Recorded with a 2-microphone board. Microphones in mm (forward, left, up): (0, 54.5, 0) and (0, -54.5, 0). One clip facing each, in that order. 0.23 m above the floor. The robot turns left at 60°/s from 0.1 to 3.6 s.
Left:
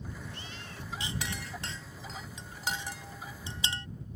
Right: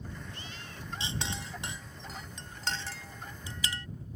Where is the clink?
30° right (ahead or behind); by 3.9 s 30° left (ahead or behind).